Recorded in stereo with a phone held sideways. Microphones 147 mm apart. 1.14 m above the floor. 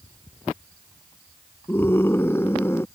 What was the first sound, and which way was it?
A scream, 15° left (ahead or behind).